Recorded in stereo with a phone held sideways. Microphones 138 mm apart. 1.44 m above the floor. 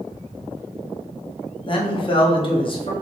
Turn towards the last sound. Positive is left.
turn(degrees=40)  # may be behind; listen again after turning